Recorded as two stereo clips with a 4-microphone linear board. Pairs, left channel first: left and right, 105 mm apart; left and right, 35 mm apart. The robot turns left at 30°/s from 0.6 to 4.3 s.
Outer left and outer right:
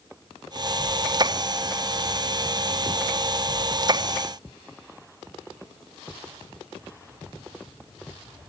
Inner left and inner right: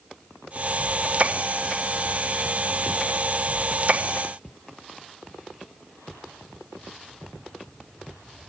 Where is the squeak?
No squeak in this recording.